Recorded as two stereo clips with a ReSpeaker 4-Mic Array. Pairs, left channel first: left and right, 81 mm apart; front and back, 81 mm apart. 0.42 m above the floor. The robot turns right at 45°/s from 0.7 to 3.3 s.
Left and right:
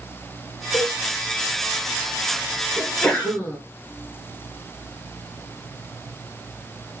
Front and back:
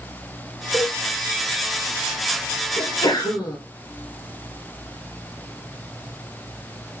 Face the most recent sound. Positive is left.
turn(degrees=30)